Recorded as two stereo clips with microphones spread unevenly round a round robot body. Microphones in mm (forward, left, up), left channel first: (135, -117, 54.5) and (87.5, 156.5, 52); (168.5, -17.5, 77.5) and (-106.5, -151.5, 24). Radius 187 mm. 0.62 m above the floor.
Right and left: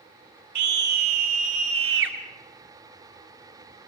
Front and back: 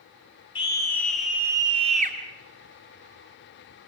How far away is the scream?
About 2.5 m.